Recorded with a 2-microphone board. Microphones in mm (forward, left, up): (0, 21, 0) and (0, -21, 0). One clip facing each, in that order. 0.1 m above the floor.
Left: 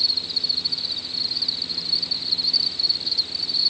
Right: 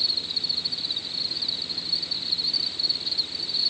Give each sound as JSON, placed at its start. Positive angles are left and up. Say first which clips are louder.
{"t": 0.0, "sound": "an insect", "louder": "left 3 dB", "side_deg": -30}